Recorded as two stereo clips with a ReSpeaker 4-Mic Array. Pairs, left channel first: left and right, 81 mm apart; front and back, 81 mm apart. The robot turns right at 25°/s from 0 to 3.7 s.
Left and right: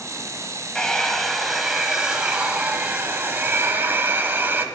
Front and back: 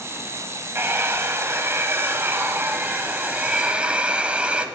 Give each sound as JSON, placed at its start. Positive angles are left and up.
{"t": 0.8, "sound": "a hair dryer", "azimuth_deg": 165, "distance_m": 0.5}